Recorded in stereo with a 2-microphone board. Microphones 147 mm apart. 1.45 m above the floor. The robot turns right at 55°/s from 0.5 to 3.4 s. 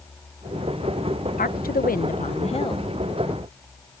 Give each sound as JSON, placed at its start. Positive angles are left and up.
{"t": 1.4, "sound": "a woman speaking", "azimuth_deg": 75}